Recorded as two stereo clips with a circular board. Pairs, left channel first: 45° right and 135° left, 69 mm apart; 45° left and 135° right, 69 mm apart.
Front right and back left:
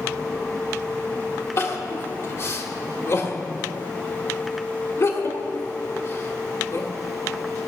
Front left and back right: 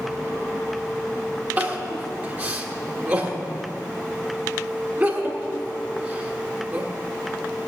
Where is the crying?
70° right, 1.6 m.